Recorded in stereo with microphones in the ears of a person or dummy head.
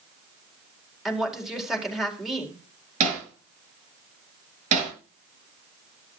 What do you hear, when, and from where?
1.1 s a woman speaking: centre (ahead or behind), 4.5 m
3.0 s hammering: 45° right (ahead or behind), 6 m